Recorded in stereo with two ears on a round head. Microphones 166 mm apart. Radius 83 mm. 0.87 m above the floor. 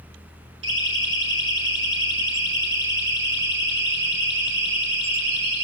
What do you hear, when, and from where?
0.6 s a siren: 75° right (ahead or behind), 9 m; by 5.7 s 65° right (ahead or behind), 11.5 m